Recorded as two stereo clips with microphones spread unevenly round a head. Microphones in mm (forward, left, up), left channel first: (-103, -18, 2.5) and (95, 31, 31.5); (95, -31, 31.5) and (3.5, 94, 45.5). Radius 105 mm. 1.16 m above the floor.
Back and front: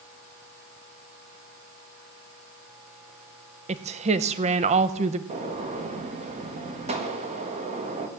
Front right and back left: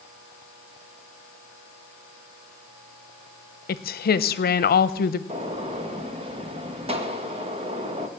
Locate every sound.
3.7 s a woman speaking: 50° right, 0.8 m
5.3 s a gunshot: 75° left, 1.9 m